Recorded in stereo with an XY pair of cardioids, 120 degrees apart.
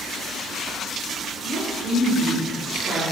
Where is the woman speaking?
70° right, 1.6 m.